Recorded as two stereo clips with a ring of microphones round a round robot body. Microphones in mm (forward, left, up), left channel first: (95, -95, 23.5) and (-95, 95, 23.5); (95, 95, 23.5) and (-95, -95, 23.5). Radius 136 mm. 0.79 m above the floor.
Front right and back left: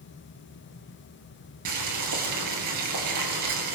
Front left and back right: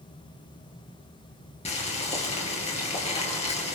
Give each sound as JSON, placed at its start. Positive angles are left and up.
{"t": 1.6, "sound": "boiling", "azimuth_deg": 115, "distance_m": 3.5}